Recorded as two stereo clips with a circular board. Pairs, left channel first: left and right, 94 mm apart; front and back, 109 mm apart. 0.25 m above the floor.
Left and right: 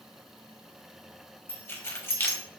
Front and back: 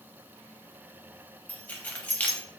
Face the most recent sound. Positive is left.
turn(degrees=60)